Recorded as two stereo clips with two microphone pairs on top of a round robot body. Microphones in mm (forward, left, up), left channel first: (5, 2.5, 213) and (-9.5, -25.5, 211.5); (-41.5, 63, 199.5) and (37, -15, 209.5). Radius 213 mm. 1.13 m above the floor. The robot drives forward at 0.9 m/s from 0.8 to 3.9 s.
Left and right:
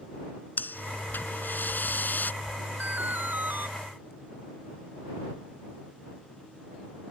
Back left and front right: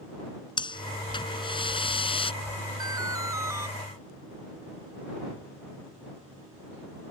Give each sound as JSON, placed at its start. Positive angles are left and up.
{"t": 0.6, "sound": "breathing", "azimuth_deg": 85}
{"t": 2.8, "sound": "an alarm", "azimuth_deg": -100}